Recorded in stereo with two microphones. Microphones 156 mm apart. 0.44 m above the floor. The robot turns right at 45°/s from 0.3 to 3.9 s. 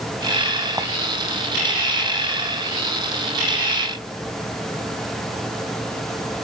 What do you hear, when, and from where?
0.8 s a clink: 20° right (ahead or behind), 2.0 m; by 0.9 s 15° right (ahead or behind), 2.0 m